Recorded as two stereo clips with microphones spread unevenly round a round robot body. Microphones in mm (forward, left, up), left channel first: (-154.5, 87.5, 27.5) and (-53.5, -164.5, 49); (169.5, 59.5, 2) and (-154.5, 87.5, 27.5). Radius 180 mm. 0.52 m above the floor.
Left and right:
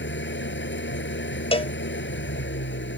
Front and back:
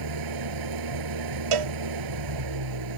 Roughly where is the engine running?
Behind.